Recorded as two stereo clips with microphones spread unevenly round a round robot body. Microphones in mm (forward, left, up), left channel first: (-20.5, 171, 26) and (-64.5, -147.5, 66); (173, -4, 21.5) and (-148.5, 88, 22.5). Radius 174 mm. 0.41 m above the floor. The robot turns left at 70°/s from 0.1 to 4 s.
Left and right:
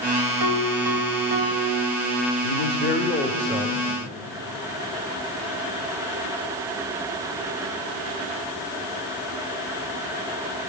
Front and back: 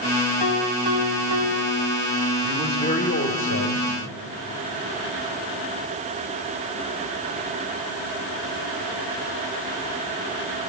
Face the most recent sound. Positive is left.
turn(degrees=-35)